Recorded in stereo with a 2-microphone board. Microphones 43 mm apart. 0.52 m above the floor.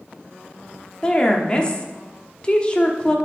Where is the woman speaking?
20° left (ahead or behind), 0.8 m.